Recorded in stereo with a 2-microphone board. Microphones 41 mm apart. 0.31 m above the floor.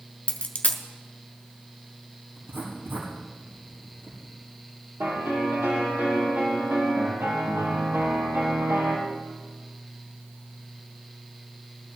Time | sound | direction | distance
0.3 | a dropped coin | 30° left (ahead or behind) | 1.3 m
2.4 | writing | 75° right (ahead or behind) | 6.5 m
5.0 | a piano | 75° right (ahead or behind) | 5 m